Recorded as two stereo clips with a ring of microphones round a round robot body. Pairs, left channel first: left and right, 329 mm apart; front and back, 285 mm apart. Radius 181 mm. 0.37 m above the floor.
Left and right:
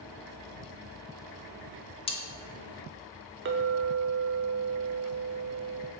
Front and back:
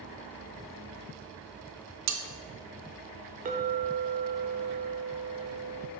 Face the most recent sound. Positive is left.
turn(degrees=-130)